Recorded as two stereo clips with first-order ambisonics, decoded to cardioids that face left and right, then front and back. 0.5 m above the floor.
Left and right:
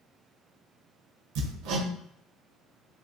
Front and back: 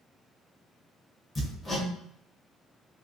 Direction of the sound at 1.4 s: 85° right.